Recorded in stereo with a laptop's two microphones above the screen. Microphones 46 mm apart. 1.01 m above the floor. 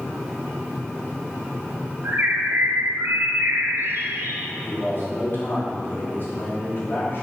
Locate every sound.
2.0 s a bird: 55° right (ahead or behind), 1.6 m
4.6 s a man speaking: 45° left (ahead or behind), 2.5 m